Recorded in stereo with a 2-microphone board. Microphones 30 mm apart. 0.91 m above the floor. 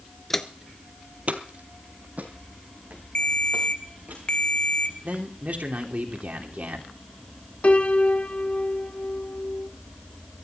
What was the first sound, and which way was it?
Footsteps, 10° left (ahead or behind).